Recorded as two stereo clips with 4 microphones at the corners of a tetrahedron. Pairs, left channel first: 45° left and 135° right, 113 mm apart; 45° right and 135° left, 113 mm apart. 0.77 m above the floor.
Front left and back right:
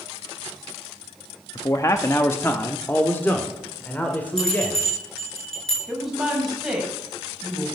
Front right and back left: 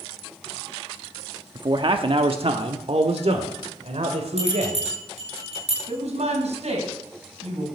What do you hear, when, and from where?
1.6 s a man speaking: 95° left, 0.8 m; by 4.8 s 120° left, 3 m
4.4 s a bell: 130° left, 9.5 m
5.9 s a woman speaking: 135° left, 5.5 m